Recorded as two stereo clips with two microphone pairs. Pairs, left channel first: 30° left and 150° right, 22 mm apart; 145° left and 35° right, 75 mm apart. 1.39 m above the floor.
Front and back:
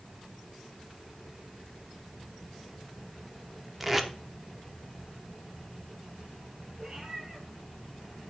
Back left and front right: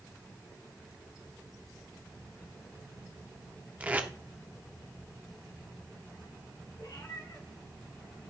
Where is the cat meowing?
150° left, 6 m.